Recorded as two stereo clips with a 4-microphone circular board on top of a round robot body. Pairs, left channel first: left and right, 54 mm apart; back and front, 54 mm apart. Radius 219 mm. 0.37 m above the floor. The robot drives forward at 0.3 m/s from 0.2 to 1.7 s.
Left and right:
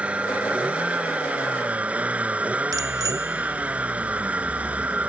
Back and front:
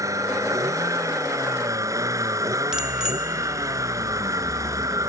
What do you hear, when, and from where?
0.0 s a vehicle: 20° right; by 5.1 s 25° right
2.7 s a bicycle bell: 80° right